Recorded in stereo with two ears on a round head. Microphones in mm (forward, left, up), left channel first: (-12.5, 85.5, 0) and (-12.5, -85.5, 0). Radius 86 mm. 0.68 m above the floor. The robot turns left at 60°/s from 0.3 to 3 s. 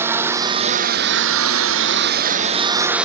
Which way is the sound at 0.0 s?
10° right.